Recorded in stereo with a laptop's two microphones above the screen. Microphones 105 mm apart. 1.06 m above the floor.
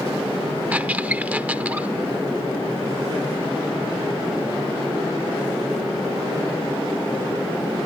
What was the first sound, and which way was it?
A squeak, 15° right (ahead or behind).